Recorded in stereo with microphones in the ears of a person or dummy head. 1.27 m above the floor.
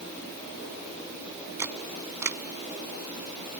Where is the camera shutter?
15° right (ahead or behind).